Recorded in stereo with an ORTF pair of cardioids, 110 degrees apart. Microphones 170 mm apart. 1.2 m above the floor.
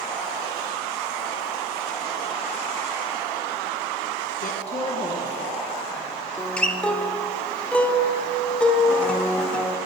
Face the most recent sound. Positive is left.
turn(degrees=5)